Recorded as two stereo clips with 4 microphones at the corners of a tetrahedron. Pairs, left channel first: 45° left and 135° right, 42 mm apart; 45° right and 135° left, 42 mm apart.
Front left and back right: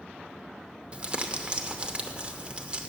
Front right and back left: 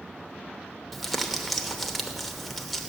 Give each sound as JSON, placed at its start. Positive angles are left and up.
{"t": 0.9, "sound": "crumpling", "azimuth_deg": -130, "distance_m": 0.8}